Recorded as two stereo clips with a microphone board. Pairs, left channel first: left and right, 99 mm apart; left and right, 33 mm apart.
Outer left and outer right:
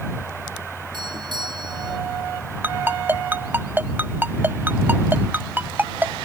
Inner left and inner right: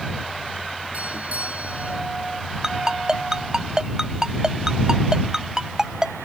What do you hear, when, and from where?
0.9 s a doorbell: 55° right (ahead or behind)
2.6 s a ringtone: 20° right (ahead or behind)